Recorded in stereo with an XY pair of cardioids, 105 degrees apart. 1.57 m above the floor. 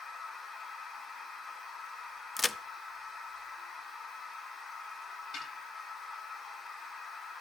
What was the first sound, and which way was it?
A machine running, 40° left.